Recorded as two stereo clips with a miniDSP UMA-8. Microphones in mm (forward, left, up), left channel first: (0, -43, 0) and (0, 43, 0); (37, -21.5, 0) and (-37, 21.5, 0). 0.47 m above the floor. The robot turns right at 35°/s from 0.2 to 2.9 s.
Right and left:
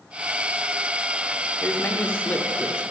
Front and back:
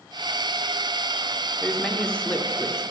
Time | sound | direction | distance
1.6 | a man speaking | 105° right | 0.7 m